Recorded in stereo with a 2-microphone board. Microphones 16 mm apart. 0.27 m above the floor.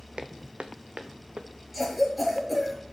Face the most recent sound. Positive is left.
turn(degrees=0)  # may be behind; listen again after turning